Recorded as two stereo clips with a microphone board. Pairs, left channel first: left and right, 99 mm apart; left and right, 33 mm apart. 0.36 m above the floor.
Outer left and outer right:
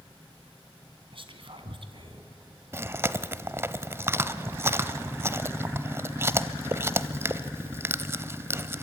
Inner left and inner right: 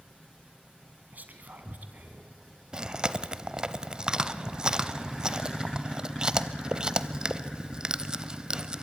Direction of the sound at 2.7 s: 25° right (ahead or behind).